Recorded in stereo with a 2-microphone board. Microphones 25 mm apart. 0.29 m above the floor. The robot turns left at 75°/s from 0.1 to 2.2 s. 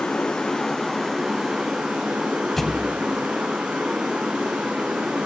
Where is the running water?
65° left, 2.5 m; by 5.3 s 95° right, 2.5 m.